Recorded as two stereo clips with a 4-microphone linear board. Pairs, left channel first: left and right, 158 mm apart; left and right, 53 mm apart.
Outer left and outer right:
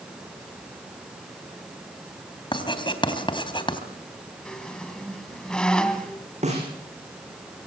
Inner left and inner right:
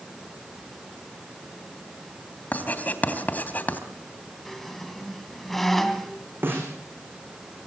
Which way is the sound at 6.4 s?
45° right (ahead or behind).